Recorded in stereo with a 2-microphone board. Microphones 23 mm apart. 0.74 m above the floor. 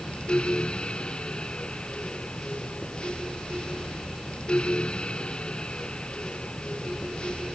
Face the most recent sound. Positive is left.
No sound to turn to.